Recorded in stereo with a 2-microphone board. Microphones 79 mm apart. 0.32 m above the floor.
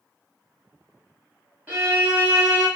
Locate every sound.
1.7 s a violin: 20° right (ahead or behind), 1.9 m